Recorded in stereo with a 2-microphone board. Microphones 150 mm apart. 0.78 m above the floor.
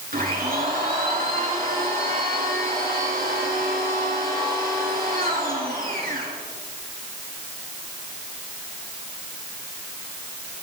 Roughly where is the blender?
Right.